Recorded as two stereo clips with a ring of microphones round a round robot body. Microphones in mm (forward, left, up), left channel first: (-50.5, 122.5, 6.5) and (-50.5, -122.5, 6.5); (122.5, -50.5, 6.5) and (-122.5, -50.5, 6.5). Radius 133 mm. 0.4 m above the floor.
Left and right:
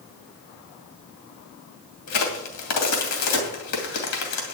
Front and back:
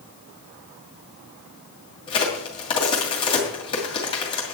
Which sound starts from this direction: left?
A crack, at 2.1 s.